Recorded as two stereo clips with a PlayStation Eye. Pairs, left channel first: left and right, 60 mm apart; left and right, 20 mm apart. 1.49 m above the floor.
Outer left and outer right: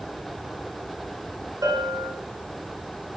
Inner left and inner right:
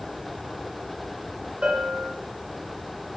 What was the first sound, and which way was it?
A bell, 65° right (ahead or behind).